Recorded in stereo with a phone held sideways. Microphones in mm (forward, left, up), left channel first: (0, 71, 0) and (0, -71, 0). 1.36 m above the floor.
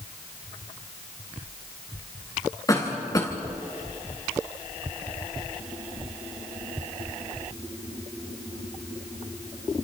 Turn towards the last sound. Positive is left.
turn(degrees=25)  # may be behind; listen again after turning